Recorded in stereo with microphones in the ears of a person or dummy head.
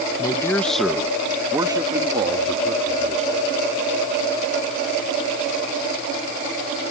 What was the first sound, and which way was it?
A man speaking, 20° left (ahead or behind).